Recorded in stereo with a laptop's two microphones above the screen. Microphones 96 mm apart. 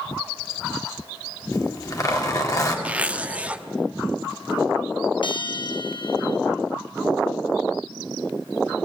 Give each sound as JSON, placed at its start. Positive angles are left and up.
{"t": 1.5, "sound": "a zipper", "side_deg": 40, "distance_m": 2.5}
{"t": 2.9, "sound": "a zipper", "side_deg": -15, "distance_m": 0.7}
{"t": 5.2, "sound": "a bell", "side_deg": 60, "distance_m": 0.8}